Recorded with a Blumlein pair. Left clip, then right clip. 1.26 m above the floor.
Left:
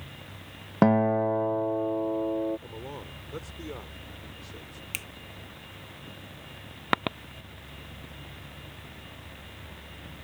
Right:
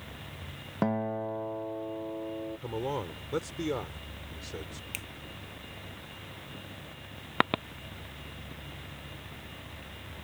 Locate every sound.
0.8 s a guitar: 25° left
2.6 s a man speaking: 70° right
4.9 s a finger snap: 15° left